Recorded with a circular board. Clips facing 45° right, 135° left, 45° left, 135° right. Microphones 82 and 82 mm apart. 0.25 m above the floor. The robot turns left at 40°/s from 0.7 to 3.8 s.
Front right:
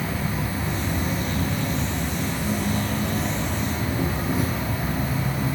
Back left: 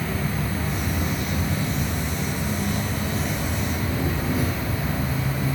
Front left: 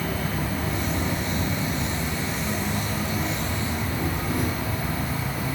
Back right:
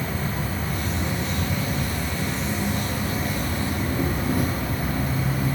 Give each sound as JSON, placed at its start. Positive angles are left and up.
{"t": 0.0, "sound": "an insect", "azimuth_deg": 25, "distance_m": 1.0}